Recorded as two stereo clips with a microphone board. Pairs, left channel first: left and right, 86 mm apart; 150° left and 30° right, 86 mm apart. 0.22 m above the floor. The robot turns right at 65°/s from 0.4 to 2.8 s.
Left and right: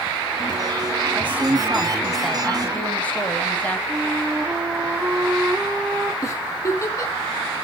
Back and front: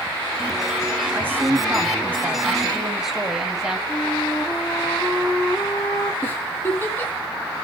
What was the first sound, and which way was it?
A woman speaking, 60° right.